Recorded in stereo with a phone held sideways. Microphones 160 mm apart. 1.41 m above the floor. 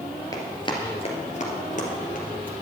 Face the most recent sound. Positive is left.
turn(degrees=60)  # may be behind; listen again after turning